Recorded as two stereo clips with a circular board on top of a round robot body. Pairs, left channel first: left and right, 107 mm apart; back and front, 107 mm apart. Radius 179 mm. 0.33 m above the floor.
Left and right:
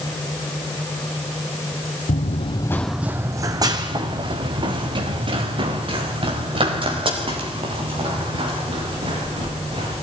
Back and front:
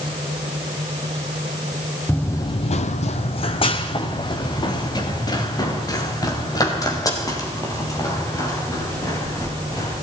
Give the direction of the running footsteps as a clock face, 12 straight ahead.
9 o'clock.